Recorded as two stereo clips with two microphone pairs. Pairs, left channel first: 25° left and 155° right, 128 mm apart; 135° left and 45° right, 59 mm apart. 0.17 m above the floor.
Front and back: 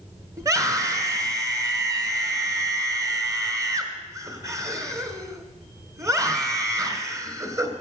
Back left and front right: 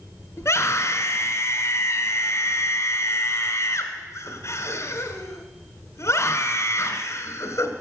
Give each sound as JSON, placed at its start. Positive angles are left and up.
{"t": 0.4, "sound": "a scream", "azimuth_deg": 145, "distance_m": 1.8}